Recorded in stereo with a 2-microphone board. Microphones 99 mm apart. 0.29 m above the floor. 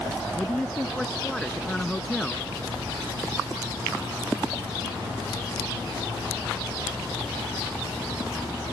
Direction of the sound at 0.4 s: 10° left (ahead or behind).